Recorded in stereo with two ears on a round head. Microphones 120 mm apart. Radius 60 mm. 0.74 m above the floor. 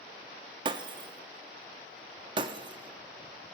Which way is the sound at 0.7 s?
35° right (ahead or behind).